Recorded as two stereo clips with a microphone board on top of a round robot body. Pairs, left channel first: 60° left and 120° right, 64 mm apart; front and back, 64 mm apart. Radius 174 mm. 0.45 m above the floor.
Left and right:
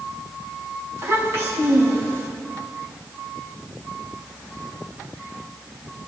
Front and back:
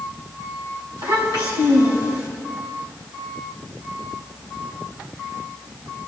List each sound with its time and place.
1.0 s a child speaking: 170° right, 3.5 m